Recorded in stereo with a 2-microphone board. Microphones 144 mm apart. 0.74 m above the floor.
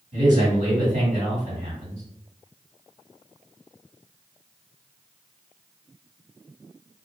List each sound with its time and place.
0.1 s a man speaking: 60° right (ahead or behind), 1.7 m